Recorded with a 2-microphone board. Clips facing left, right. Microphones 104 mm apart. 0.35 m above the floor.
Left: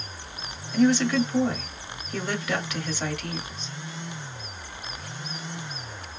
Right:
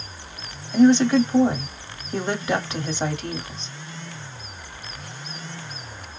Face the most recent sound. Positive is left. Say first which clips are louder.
# right 6 dB
turn(degrees=-30)  # may be behind; listen again after turning